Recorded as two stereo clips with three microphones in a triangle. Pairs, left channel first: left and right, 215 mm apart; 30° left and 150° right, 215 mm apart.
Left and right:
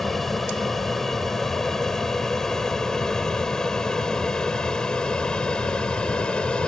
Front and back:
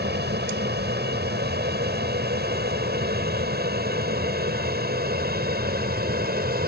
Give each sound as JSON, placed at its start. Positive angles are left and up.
{"t": 0.0, "sound": "an aircraft", "azimuth_deg": 180}